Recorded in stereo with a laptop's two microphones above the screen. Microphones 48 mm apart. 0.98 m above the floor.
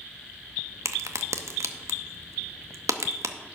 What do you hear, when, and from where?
0.8 s a crack: 90° right, 0.7 m